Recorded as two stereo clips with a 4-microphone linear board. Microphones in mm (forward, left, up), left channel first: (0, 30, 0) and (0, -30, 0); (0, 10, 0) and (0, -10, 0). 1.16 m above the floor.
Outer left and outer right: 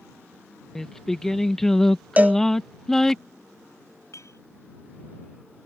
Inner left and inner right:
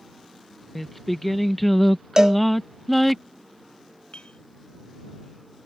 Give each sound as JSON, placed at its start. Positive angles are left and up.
{"t": 0.8, "sound": "singing", "side_deg": 10}
{"t": 2.2, "sound": "a cowbell", "side_deg": -25}
{"t": 4.1, "sound": "a clink", "side_deg": 55}